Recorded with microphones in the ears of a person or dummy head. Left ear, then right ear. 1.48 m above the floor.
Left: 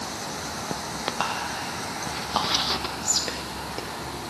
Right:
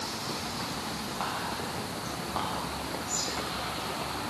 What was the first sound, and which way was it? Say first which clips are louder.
Whispering: left 3 dB; 75° left (ahead or behind).